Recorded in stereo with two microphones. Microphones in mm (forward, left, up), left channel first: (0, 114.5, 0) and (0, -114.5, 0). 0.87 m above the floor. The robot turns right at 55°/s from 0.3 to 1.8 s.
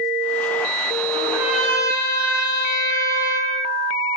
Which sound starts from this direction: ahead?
A trumpet, at 1.1 s.